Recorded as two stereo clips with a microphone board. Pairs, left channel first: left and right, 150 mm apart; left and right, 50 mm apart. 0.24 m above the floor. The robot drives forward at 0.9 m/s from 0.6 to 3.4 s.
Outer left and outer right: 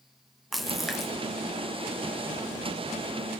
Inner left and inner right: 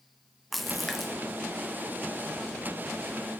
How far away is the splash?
About 0.6 m.